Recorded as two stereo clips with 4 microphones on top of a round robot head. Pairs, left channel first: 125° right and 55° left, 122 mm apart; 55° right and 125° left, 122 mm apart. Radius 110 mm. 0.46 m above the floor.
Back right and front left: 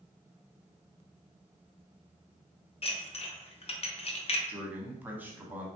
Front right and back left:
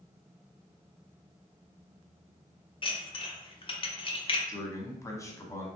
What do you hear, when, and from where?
2.8 s dishes clattering: 95° right, 0.7 m
4.5 s a man speaking: 10° right, 1.0 m